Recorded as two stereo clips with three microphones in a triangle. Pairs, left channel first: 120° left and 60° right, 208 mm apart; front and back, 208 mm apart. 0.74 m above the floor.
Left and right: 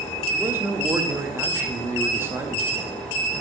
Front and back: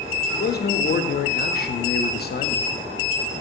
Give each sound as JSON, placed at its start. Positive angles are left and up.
{"t": 0.3, "sound": "a man speaking", "azimuth_deg": 15, "distance_m": 0.6}